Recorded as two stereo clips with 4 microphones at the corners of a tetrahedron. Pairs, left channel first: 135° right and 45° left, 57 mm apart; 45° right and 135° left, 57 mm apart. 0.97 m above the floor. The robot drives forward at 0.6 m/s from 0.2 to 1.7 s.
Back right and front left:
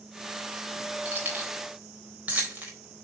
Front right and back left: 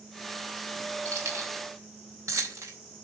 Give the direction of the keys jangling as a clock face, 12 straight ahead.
9 o'clock.